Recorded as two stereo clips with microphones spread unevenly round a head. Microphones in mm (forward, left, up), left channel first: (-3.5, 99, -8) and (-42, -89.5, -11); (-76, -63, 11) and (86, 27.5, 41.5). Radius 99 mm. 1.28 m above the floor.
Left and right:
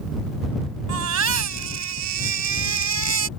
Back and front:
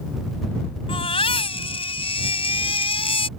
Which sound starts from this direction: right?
A baby crying, at 0.9 s.